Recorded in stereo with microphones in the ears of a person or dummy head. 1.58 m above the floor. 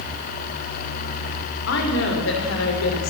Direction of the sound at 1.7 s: 60° left (ahead or behind).